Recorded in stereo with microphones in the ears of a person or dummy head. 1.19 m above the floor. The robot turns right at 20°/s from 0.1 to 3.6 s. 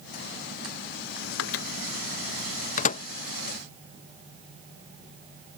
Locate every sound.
1.4 s a microwave: 70° left (ahead or behind); by 3.0 s 35° left (ahead or behind)